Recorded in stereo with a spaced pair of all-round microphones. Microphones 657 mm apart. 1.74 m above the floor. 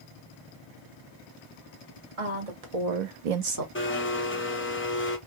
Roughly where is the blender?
Centre.